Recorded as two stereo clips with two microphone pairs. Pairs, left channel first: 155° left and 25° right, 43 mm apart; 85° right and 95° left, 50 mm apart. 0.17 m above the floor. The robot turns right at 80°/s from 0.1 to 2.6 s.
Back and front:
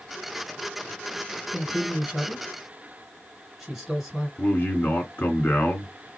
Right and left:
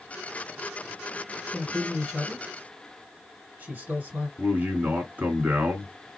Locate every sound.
1.5 s a man speaking: 35° right, 2 m; by 4.3 s 50° left, 2 m
4.4 s a man speaking: 145° left, 1.9 m